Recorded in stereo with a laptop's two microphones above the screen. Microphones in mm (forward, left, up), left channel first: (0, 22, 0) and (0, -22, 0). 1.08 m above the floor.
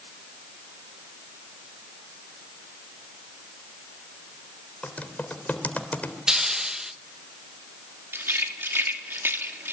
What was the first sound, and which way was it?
Typing on a keyboard, 35° left (ahead or behind).